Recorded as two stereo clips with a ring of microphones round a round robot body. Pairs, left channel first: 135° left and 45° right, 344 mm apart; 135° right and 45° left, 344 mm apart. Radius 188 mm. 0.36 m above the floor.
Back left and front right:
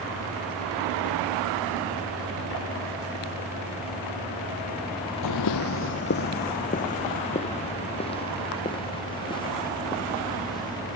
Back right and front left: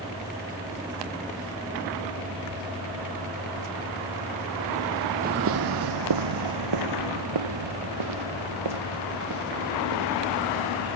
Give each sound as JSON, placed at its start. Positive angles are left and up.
{"t": 5.2, "sound": "footsteps", "azimuth_deg": 110}